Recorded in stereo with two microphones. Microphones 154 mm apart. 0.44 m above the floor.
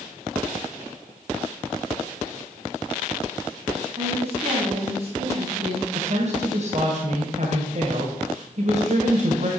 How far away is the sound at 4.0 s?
About 4 m.